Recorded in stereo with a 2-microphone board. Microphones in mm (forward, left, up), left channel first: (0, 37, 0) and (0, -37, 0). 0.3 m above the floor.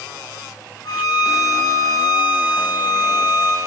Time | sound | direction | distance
0.8 | a violin | 60° left (ahead or behind) | 3.5 m